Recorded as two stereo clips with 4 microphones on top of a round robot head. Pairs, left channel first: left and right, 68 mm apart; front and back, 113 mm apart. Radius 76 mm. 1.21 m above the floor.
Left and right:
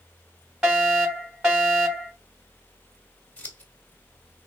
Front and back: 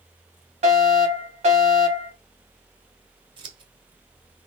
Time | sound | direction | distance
0.6 | a fire alarm | 170° right | 3.5 m
3.4 | scissors | 150° left | 1.5 m